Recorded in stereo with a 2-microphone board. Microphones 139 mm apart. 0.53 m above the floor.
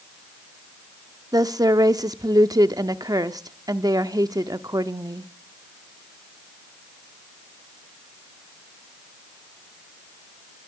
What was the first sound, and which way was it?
A woman speaking, 30° right (ahead or behind).